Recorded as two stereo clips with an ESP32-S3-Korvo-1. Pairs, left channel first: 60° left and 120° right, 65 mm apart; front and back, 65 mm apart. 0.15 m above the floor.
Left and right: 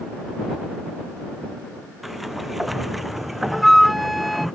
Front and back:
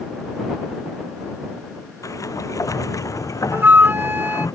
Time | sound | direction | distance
2.0 | a sliding door | 35° right | ?
3.5 | a flute | 150° left | ?